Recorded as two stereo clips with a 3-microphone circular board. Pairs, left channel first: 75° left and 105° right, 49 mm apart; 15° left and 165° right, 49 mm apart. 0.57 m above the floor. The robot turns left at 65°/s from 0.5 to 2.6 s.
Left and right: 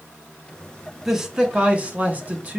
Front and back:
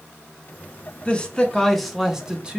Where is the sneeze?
No sneeze in this recording.